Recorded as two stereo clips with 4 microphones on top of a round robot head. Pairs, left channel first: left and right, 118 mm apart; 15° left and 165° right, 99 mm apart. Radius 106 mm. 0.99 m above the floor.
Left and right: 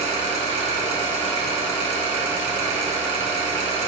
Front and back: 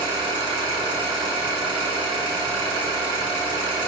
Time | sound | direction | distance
0.0 | an engine running | 120° right | 0.8 m